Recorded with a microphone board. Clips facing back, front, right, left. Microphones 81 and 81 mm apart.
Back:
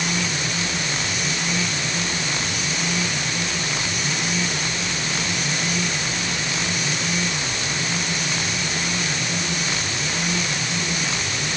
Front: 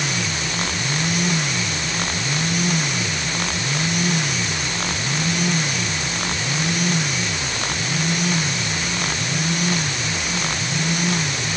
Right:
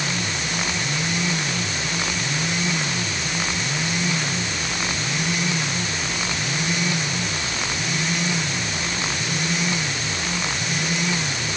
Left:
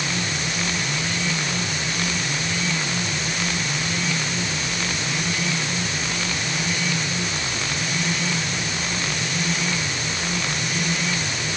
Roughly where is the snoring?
I don't hear snoring.